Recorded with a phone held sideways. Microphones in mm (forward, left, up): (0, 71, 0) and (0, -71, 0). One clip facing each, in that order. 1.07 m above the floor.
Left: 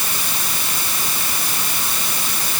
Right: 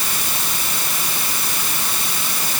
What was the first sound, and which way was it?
Only background noise.